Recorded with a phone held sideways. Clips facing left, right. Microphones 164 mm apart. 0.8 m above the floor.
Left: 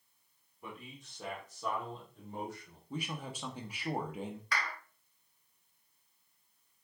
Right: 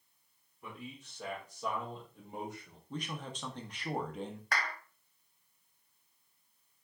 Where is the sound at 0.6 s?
15° left (ahead or behind), 2 m; by 2.8 s 25° right (ahead or behind), 1.5 m.